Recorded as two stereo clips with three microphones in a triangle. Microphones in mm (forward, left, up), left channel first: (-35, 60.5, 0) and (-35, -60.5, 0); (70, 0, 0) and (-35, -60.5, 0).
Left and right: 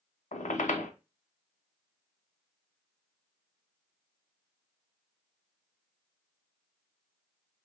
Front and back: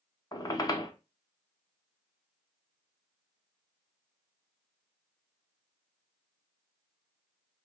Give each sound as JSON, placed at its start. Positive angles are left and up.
{"t": 0.3, "sound": "a squeak", "azimuth_deg": 85, "distance_m": 0.6}